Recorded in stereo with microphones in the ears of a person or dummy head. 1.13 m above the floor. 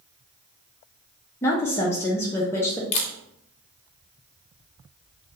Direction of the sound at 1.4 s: 15° left (ahead or behind).